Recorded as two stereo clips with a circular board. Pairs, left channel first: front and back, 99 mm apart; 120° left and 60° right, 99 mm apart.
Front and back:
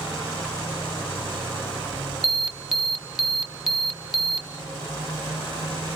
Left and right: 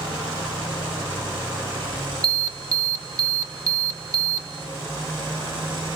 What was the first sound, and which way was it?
An alarm, 90° right.